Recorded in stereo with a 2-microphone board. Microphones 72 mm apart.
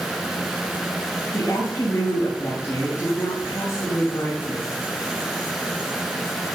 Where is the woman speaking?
35° left (ahead or behind), 4.5 m.